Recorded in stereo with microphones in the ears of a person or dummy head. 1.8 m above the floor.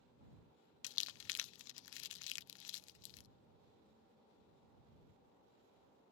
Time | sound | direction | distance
0.8 | crumpling | 70° left (ahead or behind) | ?